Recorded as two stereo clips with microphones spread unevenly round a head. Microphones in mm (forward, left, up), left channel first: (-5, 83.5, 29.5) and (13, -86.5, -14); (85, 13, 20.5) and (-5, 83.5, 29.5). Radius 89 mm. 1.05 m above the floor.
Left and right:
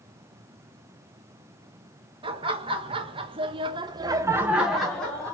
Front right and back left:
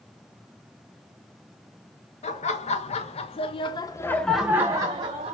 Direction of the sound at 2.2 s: 30° right.